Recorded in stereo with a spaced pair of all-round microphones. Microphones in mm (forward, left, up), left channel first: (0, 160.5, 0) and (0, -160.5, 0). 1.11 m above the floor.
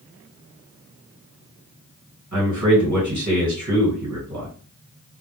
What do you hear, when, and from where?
2.3 s a man speaking: 60° right (ahead or behind), 1.5 m